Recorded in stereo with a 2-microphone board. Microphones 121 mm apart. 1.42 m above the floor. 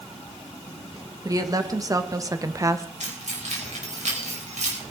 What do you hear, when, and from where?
1.2 s a woman speaking: 30° right (ahead or behind), 1.7 m; by 2.9 s 25° right (ahead or behind), 0.8 m
3.0 s keys jangling: 75° right (ahead or behind), 4.5 m